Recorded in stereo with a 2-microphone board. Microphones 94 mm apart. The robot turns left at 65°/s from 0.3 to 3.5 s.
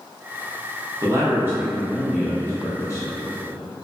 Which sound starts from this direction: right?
A man speaking, at 1.0 s.